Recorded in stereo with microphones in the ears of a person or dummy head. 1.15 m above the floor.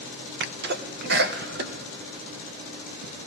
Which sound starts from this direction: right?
A sneeze, at 0.4 s.